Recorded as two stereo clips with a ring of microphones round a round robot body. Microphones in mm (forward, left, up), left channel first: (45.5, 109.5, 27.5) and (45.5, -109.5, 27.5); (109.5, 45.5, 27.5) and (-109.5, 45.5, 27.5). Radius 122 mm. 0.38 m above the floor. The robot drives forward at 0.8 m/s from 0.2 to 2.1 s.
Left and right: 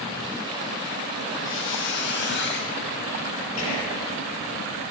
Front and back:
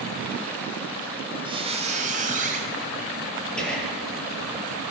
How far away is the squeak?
About 1.8 m.